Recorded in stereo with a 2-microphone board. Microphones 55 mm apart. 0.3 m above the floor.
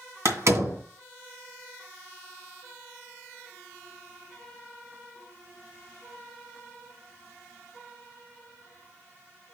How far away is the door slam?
About 2 m.